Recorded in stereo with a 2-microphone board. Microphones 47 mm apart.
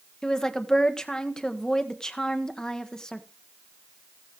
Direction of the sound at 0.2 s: 10° left (ahead or behind).